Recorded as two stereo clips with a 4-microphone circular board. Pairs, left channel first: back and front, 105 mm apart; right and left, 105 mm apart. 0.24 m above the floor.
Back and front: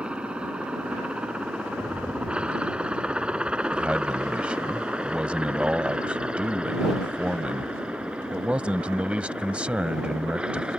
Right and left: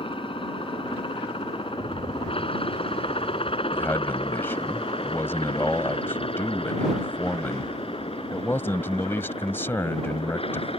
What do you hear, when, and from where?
0.0 s a helicopter: 80° right
1.7 s a rattle: 75° left
3.7 s a man speaking: 60° right